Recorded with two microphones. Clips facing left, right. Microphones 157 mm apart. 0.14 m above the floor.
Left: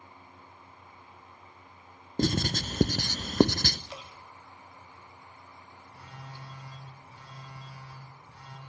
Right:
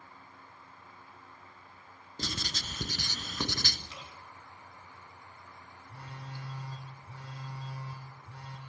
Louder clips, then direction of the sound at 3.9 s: Left 5 dB; 75° left (ahead or behind).